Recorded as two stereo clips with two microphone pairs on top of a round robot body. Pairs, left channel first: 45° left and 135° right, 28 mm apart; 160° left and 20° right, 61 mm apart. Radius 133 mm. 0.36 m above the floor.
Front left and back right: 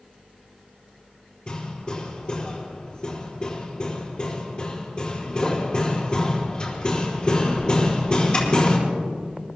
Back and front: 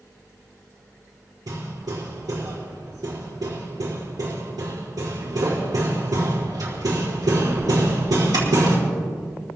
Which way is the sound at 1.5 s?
15° right.